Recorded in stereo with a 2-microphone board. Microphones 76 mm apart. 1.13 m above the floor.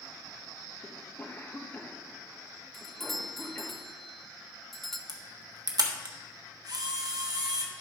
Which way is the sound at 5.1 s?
55° right (ahead or behind).